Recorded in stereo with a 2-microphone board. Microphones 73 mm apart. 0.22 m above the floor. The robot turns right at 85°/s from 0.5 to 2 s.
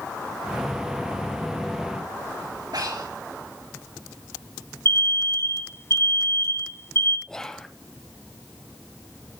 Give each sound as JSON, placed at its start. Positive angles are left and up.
{"t": 2.7, "sound": "breathing", "side_deg": -70, "distance_m": 5.0}
{"t": 4.8, "sound": "an alarm", "side_deg": 40, "distance_m": 1.1}
{"t": 7.3, "sound": "whispering", "side_deg": 10, "distance_m": 1.0}